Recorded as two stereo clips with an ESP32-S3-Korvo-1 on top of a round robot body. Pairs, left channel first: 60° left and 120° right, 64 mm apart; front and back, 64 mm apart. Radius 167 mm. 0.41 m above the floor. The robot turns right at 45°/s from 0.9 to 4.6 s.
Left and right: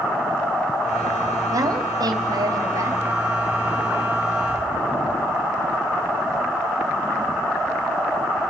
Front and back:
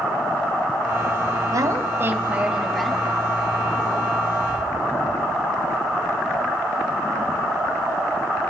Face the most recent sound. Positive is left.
turn(degrees=-5)